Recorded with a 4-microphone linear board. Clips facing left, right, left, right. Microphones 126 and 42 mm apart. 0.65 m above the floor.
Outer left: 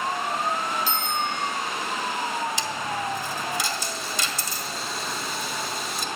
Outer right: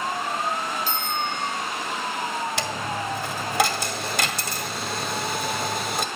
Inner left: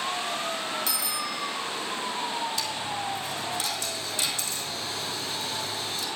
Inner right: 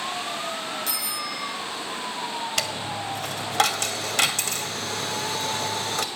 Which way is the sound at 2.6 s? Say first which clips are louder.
Outer right 1 dB, inner right 2 dB; 65° right (ahead or behind).